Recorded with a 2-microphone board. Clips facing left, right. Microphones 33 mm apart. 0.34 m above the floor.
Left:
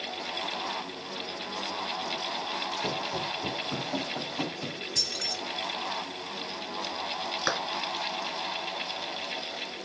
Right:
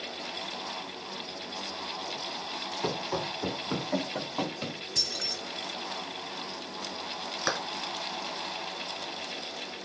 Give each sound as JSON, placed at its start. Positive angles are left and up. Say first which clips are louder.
{"t": 2.8, "sound": "running footsteps", "louder": "even", "side_deg": -65, "distance_m": 3.0}
{"t": 5.0, "sound": "keys jangling", "louder": "even", "side_deg": -10, "distance_m": 3.5}
{"t": 7.5, "sound": "a clap", "louder": "left 1 dB", "side_deg": 5, "distance_m": 2.0}